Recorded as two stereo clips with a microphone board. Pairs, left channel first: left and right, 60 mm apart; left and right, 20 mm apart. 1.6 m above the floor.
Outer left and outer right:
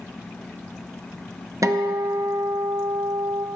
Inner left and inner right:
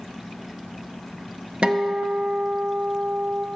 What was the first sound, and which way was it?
A guitar, 60° right (ahead or behind).